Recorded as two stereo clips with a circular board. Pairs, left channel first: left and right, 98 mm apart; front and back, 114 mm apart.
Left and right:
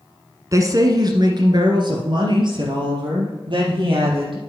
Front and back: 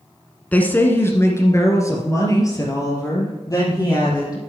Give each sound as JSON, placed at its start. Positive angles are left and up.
{"t": 0.5, "sound": "a woman speaking", "azimuth_deg": -70, "distance_m": 1.2}